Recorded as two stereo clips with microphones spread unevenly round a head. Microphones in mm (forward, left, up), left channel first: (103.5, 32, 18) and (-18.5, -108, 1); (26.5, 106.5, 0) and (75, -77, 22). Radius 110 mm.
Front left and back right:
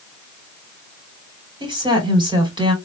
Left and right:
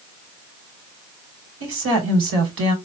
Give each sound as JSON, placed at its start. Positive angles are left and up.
{"t": 1.6, "sound": "a woman speaking", "azimuth_deg": -65, "distance_m": 3.5}